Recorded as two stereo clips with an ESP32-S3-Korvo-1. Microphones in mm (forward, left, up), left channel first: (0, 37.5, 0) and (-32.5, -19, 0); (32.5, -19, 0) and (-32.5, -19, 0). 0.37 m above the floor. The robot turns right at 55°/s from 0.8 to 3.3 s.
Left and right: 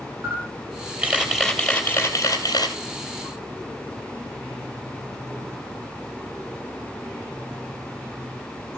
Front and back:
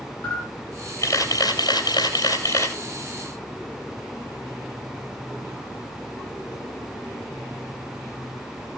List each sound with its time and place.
0.2 s a camera shutter: 65° right, 2.5 m; by 2.8 s 45° left, 2.5 m